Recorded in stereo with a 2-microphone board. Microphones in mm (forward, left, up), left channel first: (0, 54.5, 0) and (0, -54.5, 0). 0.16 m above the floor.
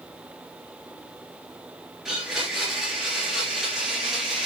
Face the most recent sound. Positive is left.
turn(degrees=0)  # may be behind; listen again after turning